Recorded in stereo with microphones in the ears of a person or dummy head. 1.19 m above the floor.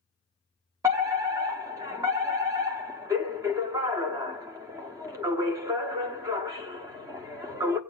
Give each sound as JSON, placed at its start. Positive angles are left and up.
{"t": 0.8, "sound": "a fire alarm", "side_deg": -15, "distance_m": 0.9}